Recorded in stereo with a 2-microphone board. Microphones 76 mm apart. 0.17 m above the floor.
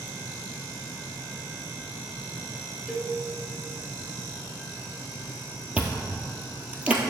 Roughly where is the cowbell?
Centre.